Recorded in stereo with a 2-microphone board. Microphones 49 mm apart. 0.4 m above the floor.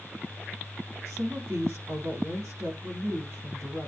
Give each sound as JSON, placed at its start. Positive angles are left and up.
{"t": 1.1, "sound": "a woman speaking", "side_deg": -70, "distance_m": 4.5}